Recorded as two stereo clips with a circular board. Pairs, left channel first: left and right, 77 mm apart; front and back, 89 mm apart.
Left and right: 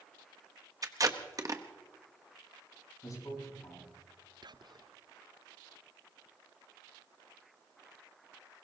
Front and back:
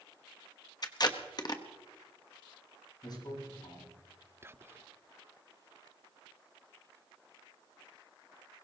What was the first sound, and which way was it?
Tape being pulled, 45° right.